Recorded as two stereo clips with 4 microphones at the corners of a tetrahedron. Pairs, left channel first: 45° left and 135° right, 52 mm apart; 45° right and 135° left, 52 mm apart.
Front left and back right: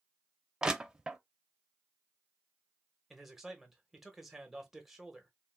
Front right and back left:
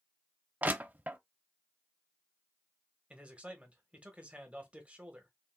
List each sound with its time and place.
0.6 s crushing: 160° left, 0.5 m
3.1 s a man speaking: 145° left, 1.0 m